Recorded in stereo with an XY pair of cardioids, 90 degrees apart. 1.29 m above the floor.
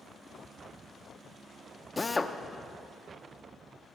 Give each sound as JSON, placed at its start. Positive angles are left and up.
{"t": 2.0, "sound": "a drill", "azimuth_deg": 20, "distance_m": 0.7}